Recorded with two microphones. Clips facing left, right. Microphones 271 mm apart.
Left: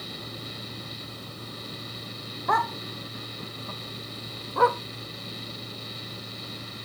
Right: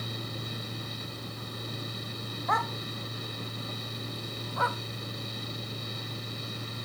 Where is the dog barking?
65° left (ahead or behind).